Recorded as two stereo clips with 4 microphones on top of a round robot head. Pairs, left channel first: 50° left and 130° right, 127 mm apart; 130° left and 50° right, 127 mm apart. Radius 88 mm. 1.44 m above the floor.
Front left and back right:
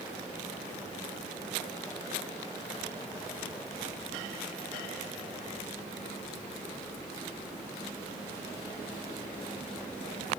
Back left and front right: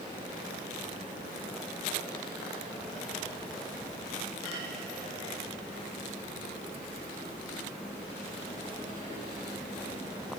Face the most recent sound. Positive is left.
No sound to turn to.